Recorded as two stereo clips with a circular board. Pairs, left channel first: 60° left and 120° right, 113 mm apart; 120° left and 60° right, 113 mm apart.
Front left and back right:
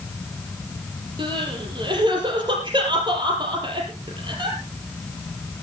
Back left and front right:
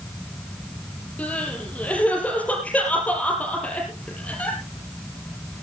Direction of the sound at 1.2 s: 165° right.